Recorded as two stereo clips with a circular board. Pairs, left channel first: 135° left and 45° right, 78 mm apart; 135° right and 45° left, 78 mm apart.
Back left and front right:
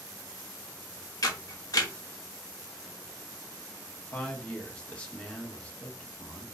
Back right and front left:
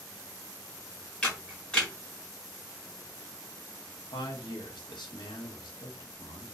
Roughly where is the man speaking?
Behind right.